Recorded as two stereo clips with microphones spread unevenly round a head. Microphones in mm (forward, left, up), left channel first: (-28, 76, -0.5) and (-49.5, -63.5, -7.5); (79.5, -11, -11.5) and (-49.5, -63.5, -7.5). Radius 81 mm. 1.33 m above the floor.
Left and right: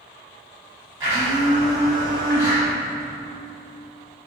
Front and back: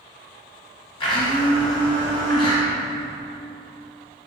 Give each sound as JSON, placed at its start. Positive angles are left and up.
{"t": 1.0, "sound": "a blender", "azimuth_deg": -30, "distance_m": 1.3}